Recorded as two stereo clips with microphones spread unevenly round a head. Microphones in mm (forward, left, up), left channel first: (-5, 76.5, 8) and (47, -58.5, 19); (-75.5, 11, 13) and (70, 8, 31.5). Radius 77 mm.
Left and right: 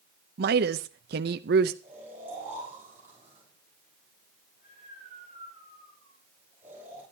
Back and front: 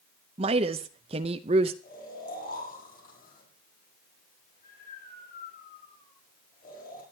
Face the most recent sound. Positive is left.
turn(degrees=-145)